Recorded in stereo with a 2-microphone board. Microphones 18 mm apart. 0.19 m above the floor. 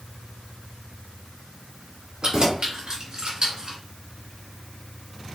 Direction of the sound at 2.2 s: 50° right (ahead or behind).